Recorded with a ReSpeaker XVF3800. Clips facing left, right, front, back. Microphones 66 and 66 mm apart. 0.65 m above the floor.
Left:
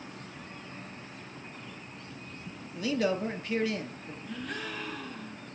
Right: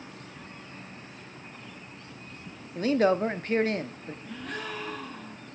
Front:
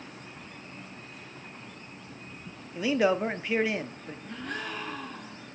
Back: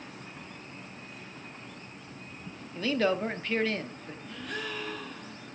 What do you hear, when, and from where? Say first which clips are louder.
2.8 s a man speaking: right 6 dB, front 3 dB; 75° right, 0.7 m
4.2 s a gasp: right 1 dB, front 1 dB; 45° right, 5 m